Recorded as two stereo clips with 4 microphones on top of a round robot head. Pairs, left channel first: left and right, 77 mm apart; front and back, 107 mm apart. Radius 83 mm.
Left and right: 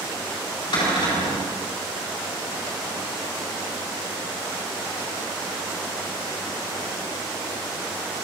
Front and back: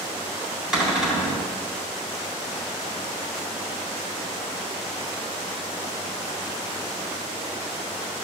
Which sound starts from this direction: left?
A cupboard door, at 0.7 s.